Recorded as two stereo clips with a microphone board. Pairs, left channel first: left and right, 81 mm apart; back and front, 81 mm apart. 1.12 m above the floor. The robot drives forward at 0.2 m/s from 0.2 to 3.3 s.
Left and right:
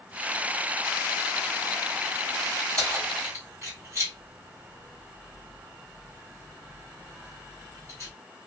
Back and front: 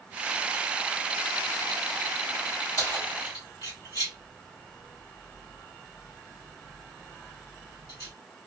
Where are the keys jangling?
140° right, 1.8 m.